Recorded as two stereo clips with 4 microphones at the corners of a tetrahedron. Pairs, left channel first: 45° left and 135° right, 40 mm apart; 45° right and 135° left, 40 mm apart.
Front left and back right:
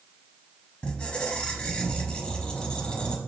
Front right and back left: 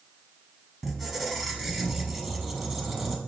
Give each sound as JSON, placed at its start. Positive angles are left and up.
{"t": 0.8, "sound": "a squeak", "azimuth_deg": 50, "distance_m": 0.6}